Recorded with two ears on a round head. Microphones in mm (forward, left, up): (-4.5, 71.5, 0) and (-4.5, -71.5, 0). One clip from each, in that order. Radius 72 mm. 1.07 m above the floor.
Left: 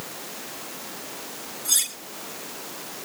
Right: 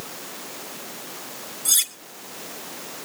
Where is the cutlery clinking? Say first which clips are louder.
Right 2 dB; 30° right (ahead or behind), 1.8 m.